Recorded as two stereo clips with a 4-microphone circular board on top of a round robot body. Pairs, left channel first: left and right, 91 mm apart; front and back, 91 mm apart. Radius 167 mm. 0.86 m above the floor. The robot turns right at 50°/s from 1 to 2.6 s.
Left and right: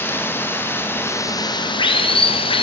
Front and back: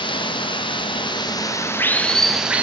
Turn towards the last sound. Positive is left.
turn(degrees=105)